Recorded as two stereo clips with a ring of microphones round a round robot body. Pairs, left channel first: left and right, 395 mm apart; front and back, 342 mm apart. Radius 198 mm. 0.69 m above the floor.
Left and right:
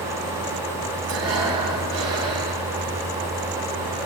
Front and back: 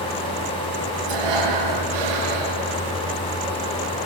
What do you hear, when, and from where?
1.1 s breathing: 150° right, 6.5 m